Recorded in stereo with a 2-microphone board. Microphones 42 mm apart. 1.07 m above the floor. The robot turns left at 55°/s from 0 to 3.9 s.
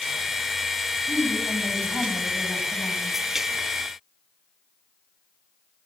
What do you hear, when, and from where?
1.1 s a woman speaking: 105° left, 8 m; by 3.2 s 10° right, 8 m